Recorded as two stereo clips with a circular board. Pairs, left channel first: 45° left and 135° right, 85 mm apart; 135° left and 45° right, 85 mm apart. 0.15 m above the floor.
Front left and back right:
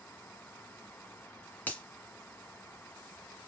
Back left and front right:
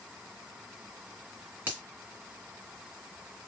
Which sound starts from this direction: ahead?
A finger snap, at 1.7 s.